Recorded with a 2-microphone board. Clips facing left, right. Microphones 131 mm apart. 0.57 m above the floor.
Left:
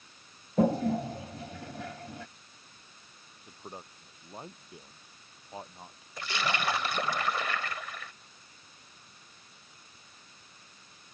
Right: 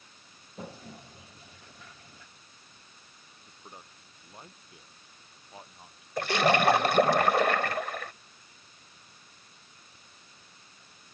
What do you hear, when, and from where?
0.6 s a toilet flushing: 75° left (ahead or behind)
3.5 s a man speaking: 30° left (ahead or behind)
6.2 s a splash: 60° right (ahead or behind)